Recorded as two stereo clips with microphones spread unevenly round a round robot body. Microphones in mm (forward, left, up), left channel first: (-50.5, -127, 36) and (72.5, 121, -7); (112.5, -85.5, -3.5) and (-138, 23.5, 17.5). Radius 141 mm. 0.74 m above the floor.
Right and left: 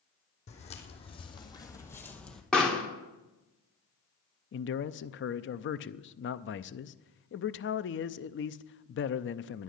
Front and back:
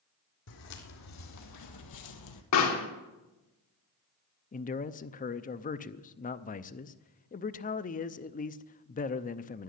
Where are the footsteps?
55° right, 2.5 m; by 2.4 s 30° right, 1.6 m.